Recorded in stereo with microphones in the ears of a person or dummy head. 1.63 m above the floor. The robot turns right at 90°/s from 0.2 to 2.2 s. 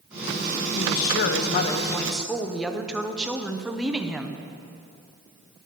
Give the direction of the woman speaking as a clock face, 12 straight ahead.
10 o'clock.